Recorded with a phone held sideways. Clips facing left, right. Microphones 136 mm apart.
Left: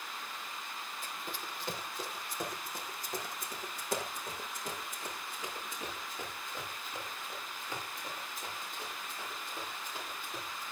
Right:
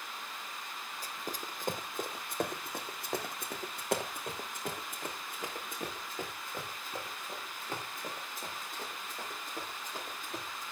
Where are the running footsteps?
35° right (ahead or behind), 1.8 m; by 10.6 s 45° right (ahead or behind), 7.5 m.